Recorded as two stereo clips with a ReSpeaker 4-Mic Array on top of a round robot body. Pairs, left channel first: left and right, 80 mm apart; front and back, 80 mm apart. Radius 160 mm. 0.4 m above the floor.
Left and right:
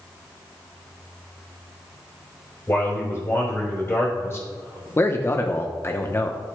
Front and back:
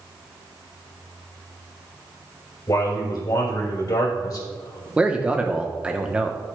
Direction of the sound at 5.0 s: 115° left.